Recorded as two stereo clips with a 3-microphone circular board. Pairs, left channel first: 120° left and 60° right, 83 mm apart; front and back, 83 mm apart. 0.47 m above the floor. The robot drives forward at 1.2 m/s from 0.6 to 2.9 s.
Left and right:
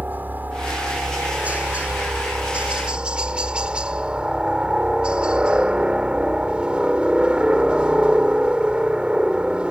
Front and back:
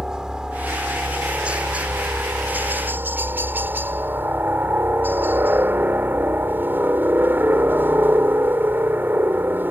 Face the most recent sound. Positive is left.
turn(degrees=-130)